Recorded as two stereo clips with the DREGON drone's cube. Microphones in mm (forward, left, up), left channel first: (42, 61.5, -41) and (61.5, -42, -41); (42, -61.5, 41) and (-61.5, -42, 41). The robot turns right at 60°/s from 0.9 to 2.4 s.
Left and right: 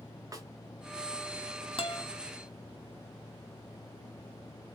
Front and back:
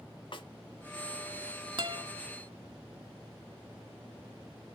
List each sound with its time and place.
0.3 s a snare drum: 35° right, 0.8 m
1.8 s a guitar: 130° left, 0.8 m; by 2.0 s 145° left, 0.8 m